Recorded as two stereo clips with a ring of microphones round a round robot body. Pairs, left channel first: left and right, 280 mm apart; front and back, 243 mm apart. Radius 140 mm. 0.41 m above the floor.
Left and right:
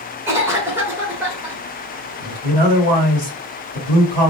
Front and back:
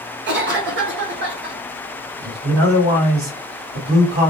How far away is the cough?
About 1.1 m.